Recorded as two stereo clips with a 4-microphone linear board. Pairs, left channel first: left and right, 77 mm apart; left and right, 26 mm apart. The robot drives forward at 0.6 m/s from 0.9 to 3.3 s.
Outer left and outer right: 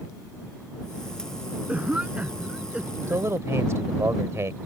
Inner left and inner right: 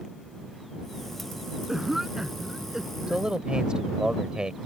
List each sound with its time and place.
1.7 s a cough: 20° right (ahead or behind); by 3.2 s 15° right (ahead or behind)
3.1 s a man speaking: 40° right (ahead or behind)